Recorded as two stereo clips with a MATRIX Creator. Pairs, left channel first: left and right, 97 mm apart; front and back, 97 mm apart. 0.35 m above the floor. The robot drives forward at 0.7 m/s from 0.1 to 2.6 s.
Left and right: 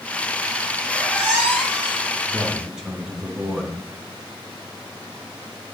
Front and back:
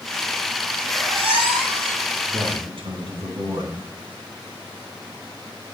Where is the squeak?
170° right, 3 m.